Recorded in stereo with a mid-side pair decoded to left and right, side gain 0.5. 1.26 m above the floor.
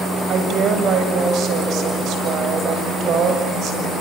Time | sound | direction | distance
0.3 | a woman speaking | 65° right | 7.5 m